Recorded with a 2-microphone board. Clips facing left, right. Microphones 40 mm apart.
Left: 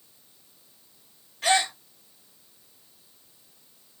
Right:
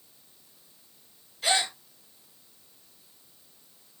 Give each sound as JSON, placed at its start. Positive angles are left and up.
{"t": 1.4, "sound": "a gasp", "side_deg": 50, "distance_m": 1.6}